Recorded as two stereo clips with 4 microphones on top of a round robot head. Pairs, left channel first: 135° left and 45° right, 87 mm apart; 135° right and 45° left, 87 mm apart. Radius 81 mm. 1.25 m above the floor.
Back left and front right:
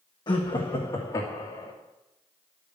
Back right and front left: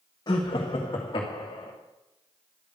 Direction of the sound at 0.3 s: 175° left.